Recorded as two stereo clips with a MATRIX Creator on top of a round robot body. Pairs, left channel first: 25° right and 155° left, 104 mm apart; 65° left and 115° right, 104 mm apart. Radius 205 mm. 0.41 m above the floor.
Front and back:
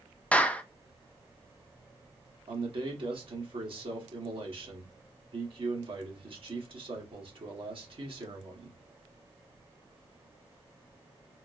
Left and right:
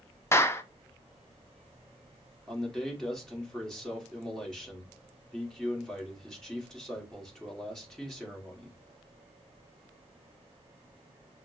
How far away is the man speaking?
About 1.6 m.